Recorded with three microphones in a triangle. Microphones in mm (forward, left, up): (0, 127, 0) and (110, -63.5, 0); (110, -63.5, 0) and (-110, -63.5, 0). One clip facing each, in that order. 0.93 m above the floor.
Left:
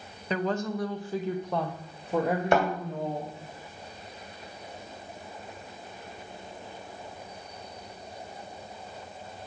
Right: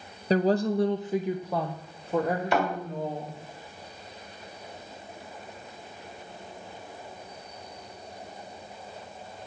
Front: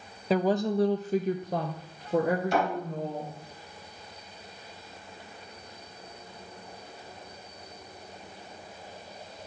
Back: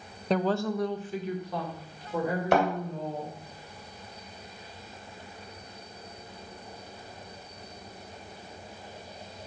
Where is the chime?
I don't hear a chime.